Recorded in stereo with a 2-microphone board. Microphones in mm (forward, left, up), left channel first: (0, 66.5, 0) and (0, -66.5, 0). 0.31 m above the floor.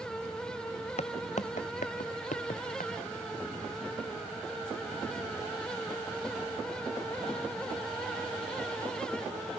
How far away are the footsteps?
About 0.7 m.